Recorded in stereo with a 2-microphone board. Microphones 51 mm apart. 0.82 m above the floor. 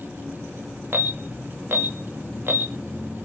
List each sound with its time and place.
0.9 s an alarm: 55° right (ahead or behind), 1.7 m